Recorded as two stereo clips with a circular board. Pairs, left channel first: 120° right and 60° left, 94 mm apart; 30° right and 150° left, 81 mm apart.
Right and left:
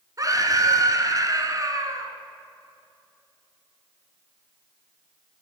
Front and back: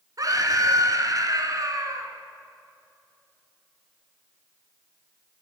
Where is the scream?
110° left, 4.5 m.